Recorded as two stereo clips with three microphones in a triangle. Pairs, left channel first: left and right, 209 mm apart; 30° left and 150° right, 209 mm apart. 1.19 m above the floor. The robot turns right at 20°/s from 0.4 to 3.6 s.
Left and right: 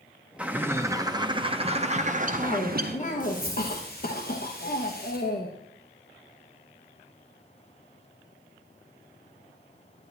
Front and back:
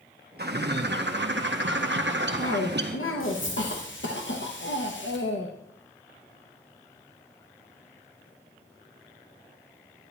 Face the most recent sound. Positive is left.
turn(degrees=50)